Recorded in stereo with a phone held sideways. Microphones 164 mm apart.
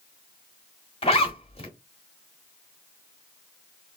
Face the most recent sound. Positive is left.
turn(degrees=35)  # may be behind; listen again after turning